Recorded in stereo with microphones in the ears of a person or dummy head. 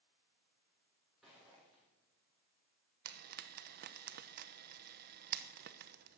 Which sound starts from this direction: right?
Frying, at 3.0 s.